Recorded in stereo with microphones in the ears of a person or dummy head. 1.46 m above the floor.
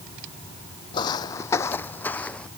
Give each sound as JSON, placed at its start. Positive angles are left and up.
{"t": 0.9, "sound": "footsteps", "side_deg": 30}